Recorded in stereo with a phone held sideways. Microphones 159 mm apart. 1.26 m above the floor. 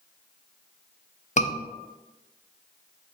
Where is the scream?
45° left (ahead or behind), 0.6 m.